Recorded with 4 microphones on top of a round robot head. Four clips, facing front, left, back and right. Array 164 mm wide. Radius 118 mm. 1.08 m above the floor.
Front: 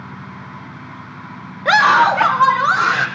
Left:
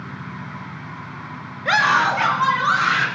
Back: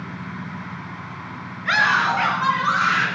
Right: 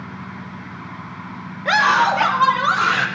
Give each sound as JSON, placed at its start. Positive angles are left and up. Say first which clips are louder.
{"t": 1.6, "sound": "a scream", "louder": "right 2 dB, front 8 dB", "azimuth_deg": 0, "distance_m": 1.7}